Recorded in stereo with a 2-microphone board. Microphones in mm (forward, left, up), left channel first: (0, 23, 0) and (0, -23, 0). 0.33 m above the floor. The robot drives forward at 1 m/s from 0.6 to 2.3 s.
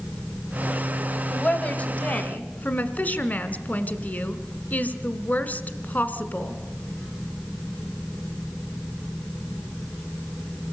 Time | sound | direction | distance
1.3 | a woman speaking | 30° left (ahead or behind) | 1.8 m